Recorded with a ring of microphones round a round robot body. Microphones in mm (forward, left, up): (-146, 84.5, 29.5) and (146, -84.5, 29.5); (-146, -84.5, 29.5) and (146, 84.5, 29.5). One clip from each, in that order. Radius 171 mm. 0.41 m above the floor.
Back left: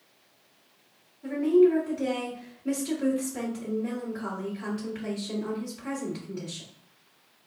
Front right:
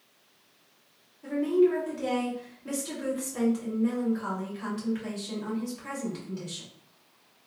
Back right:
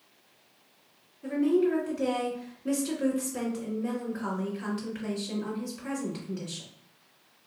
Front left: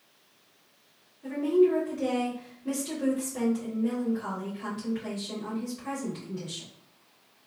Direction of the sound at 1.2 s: 100° right.